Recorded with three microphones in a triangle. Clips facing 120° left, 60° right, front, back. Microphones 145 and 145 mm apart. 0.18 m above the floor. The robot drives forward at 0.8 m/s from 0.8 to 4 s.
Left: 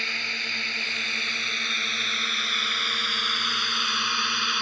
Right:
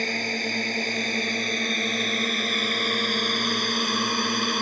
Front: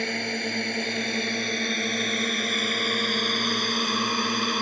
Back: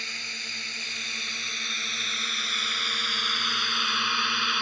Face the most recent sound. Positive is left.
turn(degrees=-30)